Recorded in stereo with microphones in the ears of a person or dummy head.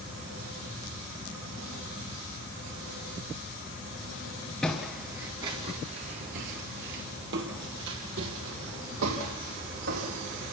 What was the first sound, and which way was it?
Footsteps, 5° left (ahead or behind).